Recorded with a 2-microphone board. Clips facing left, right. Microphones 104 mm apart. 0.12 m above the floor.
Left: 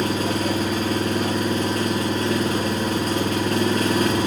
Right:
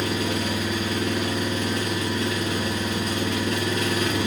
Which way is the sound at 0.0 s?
45° left (ahead or behind).